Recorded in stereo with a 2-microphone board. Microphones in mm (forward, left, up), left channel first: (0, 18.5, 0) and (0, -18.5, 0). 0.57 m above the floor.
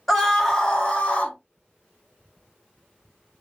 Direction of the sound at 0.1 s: 5° left (ahead or behind).